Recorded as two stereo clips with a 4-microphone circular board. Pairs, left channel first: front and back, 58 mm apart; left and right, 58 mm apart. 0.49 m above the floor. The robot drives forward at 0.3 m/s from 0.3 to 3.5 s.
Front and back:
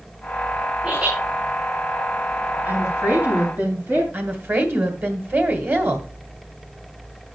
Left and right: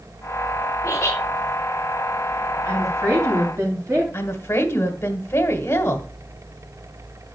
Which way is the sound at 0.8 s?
125° left.